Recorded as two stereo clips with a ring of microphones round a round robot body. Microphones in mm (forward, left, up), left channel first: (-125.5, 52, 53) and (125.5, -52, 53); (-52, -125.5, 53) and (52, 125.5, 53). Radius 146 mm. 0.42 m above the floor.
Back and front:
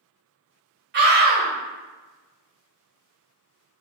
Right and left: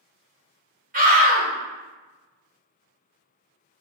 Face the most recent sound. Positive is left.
turn(degrees=20)